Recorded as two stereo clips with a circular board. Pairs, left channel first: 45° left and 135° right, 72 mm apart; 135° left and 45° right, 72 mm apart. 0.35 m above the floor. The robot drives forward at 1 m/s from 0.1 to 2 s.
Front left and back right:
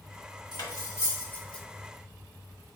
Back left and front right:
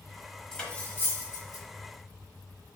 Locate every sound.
0.5 s cutlery clinking: 55° left, 1.2 m; by 1.6 s 125° left, 1.1 m